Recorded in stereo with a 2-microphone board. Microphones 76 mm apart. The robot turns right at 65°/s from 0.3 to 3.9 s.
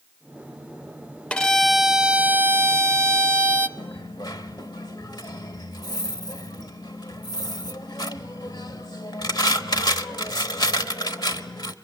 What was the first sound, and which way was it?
A violin, 155° left.